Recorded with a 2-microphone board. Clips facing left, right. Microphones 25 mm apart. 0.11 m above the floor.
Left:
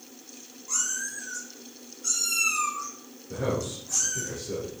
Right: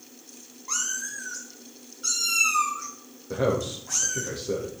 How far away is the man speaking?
About 3 m.